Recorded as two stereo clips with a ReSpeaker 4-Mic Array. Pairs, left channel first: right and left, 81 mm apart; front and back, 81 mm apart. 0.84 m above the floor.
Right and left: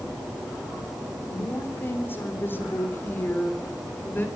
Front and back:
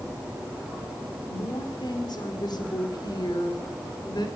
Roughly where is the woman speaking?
Ahead right.